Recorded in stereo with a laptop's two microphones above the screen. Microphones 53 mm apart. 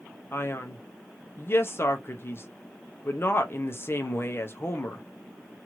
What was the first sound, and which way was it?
A man speaking, 45° left (ahead or behind).